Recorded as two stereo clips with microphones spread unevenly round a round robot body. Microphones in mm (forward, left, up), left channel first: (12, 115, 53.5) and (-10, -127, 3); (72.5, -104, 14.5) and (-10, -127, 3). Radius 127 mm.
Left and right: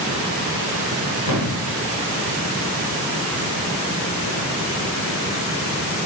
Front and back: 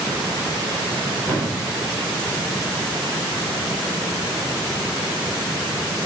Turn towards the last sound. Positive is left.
turn(degrees=110)